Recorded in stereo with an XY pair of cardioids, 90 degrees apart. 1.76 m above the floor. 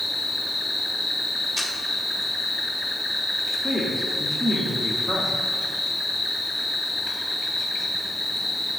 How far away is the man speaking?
About 1.1 m.